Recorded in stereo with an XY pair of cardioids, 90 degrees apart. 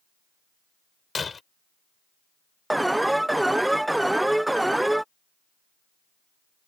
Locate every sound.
1.1 s breaking glass: 40° left
2.7 s an alarm: 10° right